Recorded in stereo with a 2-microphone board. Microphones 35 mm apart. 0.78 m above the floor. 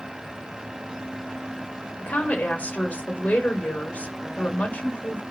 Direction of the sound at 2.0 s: 40° left (ahead or behind).